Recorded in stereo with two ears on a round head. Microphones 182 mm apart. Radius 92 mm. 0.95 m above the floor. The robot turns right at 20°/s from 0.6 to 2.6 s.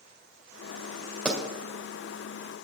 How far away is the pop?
About 2.0 m.